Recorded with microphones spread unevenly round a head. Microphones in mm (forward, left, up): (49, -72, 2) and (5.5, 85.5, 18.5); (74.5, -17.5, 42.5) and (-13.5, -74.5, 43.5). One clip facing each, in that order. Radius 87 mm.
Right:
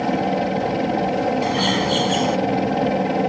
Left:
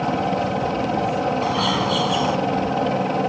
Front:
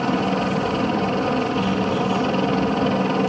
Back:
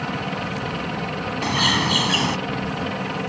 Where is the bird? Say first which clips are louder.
Right 1 dB, front 2 dB; 150° right.